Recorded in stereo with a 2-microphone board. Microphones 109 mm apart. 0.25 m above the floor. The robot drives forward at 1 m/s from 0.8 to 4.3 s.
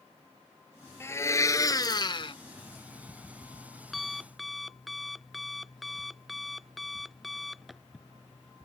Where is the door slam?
I don't hear a door slam.